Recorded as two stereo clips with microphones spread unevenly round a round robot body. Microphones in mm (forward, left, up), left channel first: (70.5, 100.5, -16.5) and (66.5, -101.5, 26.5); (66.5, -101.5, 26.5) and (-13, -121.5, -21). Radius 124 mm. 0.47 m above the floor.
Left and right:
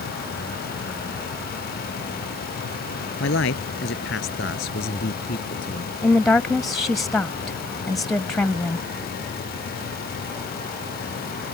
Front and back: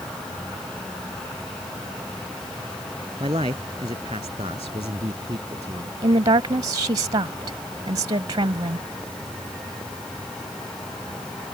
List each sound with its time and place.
3.2 s a man speaking: 135° left; by 5.9 s 145° left
6.0 s a woman speaking: 175° left